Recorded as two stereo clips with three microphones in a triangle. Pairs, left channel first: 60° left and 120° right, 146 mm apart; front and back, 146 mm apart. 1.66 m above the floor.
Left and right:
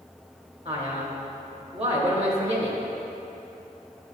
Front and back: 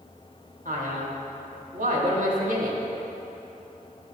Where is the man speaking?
160° right, 1.4 m.